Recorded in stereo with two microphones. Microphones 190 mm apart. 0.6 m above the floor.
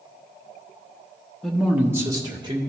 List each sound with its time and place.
1.4 s a man speaking: centre (ahead or behind), 1.2 m; by 2.6 s 25° right (ahead or behind), 1.7 m